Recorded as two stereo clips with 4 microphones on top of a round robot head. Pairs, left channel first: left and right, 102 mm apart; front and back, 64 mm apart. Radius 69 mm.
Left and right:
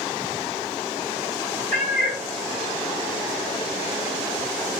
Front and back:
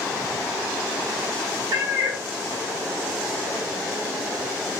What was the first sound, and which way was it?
A cat meowing, 165° left.